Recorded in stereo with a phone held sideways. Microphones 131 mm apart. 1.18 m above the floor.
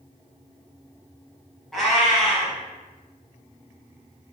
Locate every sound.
1.7 s a cat meowing: centre (ahead or behind), 1.2 m